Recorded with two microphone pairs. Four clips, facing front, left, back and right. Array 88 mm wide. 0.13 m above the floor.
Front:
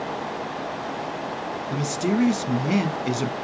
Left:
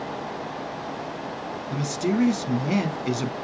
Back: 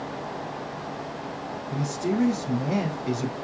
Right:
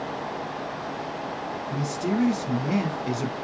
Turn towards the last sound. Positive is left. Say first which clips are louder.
# left 2 dB, front 3 dB
turn(degrees=30)